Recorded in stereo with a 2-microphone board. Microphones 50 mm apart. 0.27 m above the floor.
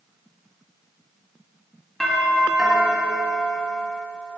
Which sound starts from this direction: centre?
A doorbell, at 2.0 s.